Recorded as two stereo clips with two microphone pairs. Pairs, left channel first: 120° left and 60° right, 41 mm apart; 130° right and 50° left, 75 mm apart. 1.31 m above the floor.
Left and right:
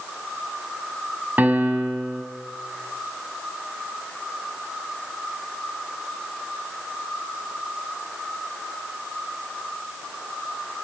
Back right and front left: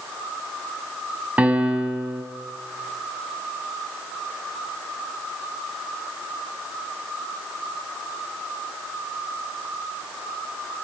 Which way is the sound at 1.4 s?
20° right.